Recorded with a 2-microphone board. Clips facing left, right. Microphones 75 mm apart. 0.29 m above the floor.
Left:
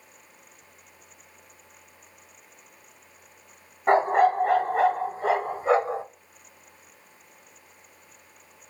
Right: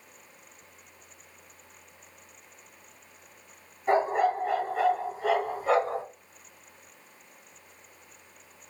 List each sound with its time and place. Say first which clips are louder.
3.9 s a dog barking: left 5 dB; 60° left (ahead or behind), 0.9 m; by 6.0 s 15° left (ahead or behind), 1.2 m